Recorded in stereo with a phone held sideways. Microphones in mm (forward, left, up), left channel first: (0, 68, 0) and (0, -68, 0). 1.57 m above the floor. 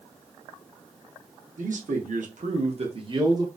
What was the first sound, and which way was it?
A man speaking, 75° right (ahead or behind).